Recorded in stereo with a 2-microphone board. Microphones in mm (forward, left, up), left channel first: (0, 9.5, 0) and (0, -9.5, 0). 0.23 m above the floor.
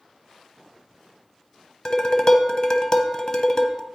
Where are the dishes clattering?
30° left (ahead or behind), 0.8 m.